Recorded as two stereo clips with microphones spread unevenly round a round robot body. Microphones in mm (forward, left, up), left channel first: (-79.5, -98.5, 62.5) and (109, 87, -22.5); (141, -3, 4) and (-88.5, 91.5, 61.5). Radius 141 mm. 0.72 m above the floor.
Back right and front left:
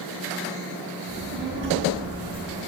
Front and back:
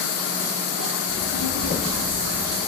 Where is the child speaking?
5° right, 5 m; by 2.6 s 5° left, 6 m.